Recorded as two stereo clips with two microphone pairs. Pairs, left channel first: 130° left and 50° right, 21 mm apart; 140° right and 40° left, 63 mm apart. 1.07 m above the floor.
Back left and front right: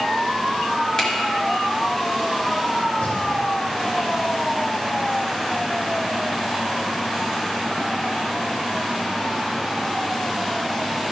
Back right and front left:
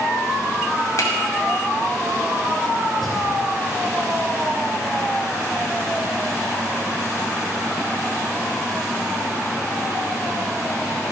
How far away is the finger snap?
About 2.5 m.